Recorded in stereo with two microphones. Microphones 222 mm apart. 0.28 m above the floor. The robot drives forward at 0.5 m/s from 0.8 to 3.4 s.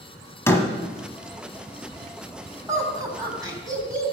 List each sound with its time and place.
0.5 s a door slam: 10° left (ahead or behind), 1.1 m
2.7 s laughter: 15° right (ahead or behind), 2.5 m; by 4.1 s 20° right (ahead or behind), 2 m